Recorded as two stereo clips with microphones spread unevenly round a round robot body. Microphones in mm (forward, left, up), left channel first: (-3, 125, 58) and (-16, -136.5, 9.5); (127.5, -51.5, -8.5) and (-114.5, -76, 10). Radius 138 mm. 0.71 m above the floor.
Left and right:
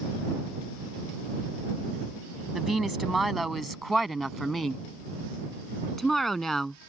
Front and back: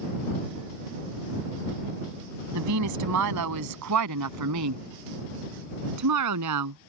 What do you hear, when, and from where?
2.5 s a woman speaking: 175° left